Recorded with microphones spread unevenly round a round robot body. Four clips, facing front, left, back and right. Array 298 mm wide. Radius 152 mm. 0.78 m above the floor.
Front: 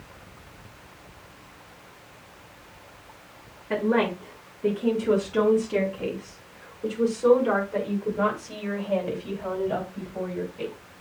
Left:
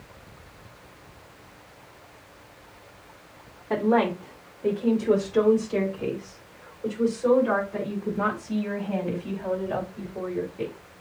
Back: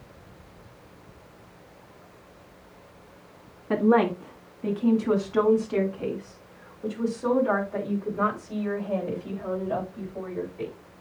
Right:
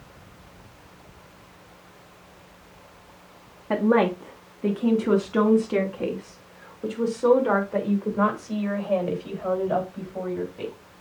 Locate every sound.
3.7 s a woman speaking: 120° right, 1.6 m; by 10.7 s 80° right, 5.5 m